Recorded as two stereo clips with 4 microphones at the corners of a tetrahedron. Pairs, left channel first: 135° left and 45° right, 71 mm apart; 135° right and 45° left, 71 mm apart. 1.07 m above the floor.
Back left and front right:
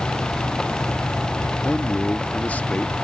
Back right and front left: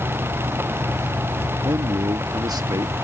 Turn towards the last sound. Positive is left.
turn(degrees=65)